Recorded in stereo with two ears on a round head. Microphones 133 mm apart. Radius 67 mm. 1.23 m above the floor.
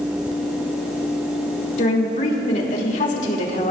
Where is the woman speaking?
50° left (ahead or behind), 2.5 m.